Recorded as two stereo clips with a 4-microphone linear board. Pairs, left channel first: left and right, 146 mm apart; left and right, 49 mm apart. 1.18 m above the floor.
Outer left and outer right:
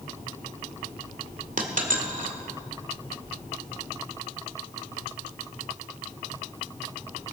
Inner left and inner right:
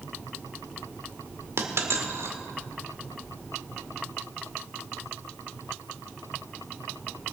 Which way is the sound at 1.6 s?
65° right (ahead or behind).